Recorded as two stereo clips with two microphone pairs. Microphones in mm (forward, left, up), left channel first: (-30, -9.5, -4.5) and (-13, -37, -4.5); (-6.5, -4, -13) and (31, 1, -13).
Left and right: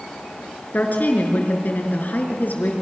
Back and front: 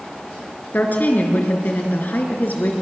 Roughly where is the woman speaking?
Behind left.